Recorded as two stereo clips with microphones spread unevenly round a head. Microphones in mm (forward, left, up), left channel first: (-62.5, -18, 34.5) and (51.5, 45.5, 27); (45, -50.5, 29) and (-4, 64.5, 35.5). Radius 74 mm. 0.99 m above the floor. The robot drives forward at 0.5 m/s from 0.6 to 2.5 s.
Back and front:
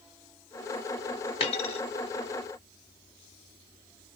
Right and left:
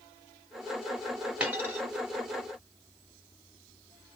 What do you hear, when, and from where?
1.4 s a dropped coin: 170° right, 0.9 m; by 1.8 s 175° right, 1.1 m